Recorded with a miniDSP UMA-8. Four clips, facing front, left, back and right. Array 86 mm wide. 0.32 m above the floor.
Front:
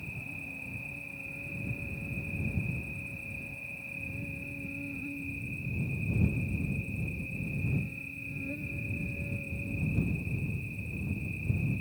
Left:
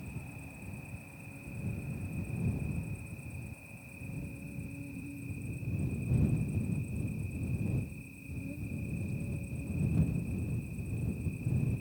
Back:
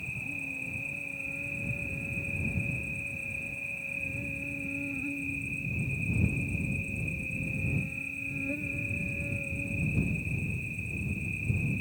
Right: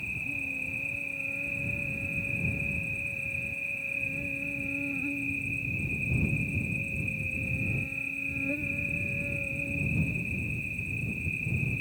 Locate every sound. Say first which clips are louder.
0.0 s an insect: right 8 dB, back 3 dB; 115° right